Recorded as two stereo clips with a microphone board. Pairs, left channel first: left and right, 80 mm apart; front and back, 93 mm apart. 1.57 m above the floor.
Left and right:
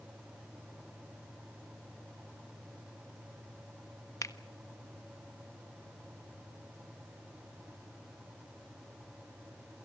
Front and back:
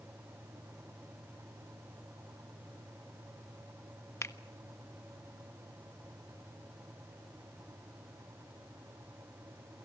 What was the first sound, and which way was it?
A finger snap, 55° left.